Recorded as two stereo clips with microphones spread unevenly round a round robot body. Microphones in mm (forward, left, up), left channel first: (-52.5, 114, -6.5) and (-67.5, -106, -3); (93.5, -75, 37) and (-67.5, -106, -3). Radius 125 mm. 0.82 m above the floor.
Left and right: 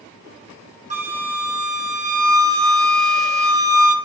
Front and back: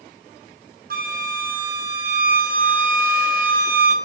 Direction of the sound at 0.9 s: 150° right.